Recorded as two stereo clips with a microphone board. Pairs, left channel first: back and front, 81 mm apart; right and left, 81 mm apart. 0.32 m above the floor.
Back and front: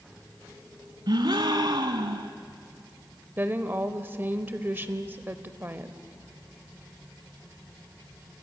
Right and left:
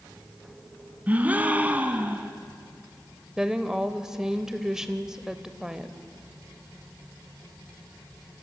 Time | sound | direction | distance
1.1 | a gasp | 20° left | 1.0 m
3.4 | a woman speaking | 15° left | 1.0 m